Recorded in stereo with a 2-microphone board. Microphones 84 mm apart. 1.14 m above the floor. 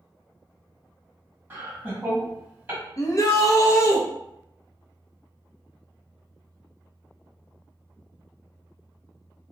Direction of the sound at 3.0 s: 40° left (ahead or behind).